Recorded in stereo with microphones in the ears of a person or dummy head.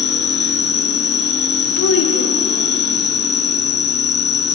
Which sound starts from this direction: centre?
An insect, at 0.0 s.